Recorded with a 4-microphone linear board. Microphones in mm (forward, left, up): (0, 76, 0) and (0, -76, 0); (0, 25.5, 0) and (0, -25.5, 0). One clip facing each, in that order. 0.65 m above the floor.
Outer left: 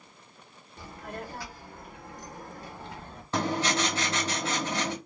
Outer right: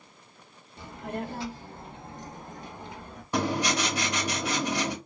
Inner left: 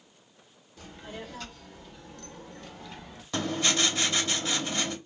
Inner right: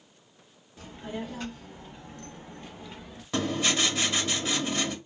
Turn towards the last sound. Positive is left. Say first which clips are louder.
# outer right 1 dB, inner right 1 dB
turn(degrees=-15)  # may be behind; listen again after turning